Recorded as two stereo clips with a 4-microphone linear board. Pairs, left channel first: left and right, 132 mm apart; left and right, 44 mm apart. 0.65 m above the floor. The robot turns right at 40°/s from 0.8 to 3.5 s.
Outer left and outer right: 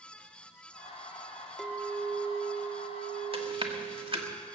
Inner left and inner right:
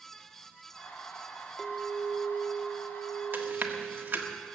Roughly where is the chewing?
Right.